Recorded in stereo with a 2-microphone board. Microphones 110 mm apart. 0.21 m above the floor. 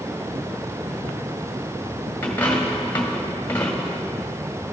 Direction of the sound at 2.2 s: 20° left (ahead or behind).